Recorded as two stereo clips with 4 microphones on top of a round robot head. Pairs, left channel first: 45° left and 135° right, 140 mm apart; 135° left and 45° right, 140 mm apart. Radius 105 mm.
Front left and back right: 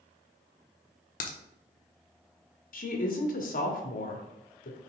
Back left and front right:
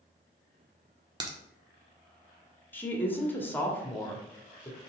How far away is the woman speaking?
About 1.6 m.